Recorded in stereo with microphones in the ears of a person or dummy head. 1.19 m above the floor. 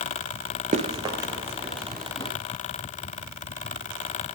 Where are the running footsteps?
25° right (ahead or behind), 1.3 m; by 2.3 s 5° left (ahead or behind), 3 m.